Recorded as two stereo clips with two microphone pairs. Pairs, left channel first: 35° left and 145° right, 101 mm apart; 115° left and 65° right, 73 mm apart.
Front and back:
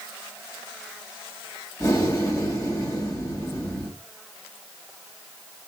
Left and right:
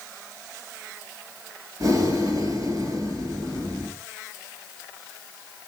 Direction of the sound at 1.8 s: 25° right.